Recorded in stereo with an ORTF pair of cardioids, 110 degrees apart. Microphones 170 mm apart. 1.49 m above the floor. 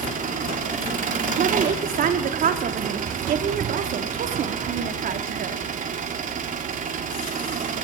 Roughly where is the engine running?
Ahead right.